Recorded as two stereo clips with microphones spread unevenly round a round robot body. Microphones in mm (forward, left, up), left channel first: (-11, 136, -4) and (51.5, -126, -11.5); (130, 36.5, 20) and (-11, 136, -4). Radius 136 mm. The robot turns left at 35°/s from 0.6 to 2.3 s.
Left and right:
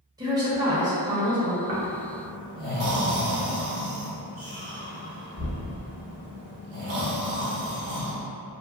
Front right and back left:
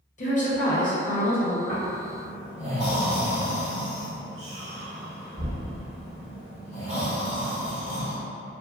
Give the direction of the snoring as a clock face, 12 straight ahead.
2 o'clock.